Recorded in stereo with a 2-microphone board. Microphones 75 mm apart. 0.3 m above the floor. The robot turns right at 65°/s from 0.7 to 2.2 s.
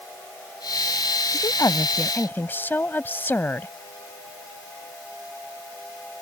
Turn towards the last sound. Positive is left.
turn(degrees=145)